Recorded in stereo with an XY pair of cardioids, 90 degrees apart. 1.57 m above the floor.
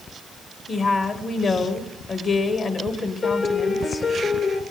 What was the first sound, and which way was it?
A woman speaking, 55° left.